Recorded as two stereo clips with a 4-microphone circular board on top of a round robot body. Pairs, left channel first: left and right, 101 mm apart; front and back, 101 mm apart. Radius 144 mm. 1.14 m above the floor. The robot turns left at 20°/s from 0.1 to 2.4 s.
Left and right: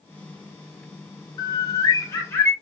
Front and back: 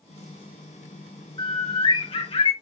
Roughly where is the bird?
Ahead left.